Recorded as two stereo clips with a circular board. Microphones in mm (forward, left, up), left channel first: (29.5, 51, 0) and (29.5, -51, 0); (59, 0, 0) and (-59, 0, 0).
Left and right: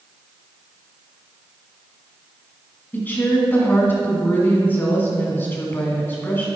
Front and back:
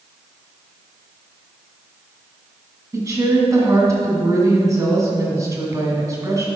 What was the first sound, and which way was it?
A woman speaking, 145° left.